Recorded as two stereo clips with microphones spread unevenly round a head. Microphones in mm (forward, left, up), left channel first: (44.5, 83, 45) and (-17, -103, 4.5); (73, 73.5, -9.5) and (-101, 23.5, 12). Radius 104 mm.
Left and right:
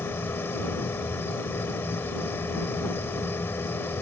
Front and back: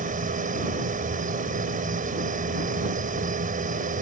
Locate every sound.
0.0 s a machine running: 150° left